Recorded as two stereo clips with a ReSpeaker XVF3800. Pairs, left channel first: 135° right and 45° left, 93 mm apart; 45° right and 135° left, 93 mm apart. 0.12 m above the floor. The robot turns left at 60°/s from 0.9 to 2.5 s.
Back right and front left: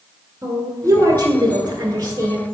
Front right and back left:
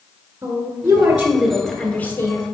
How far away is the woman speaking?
About 1.4 m.